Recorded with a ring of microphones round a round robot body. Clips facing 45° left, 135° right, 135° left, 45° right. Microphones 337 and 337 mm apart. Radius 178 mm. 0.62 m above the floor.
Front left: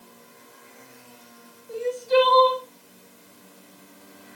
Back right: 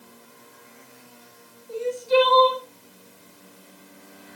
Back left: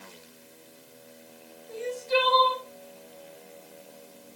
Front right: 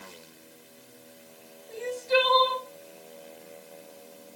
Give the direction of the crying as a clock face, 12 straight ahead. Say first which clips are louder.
Even, front right 1 dB; 2 o'clock.